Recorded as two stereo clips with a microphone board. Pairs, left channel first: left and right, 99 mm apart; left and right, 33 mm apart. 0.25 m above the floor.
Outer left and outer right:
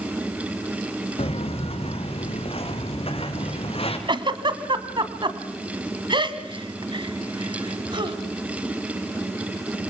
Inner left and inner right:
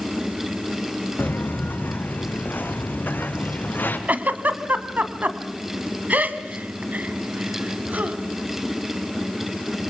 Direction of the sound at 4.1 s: 55° right (ahead or behind).